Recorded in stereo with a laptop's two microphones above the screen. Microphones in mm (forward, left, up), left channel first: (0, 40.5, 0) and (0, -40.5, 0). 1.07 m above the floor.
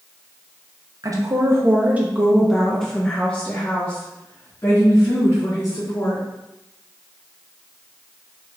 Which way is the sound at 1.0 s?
45° right (ahead or behind).